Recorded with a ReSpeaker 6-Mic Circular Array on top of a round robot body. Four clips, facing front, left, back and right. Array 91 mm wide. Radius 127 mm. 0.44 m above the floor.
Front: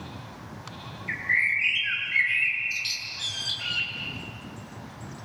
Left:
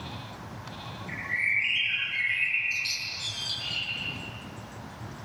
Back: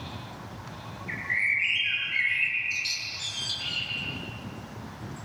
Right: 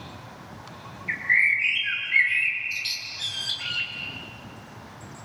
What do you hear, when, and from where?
1.1 s a bird: 35° right, 6 m